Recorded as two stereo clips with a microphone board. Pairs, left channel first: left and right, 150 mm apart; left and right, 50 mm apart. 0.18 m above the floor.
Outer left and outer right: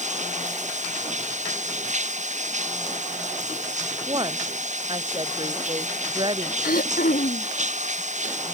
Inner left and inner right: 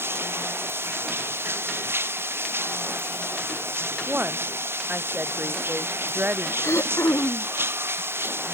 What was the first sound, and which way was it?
Running water, 55° right (ahead or behind).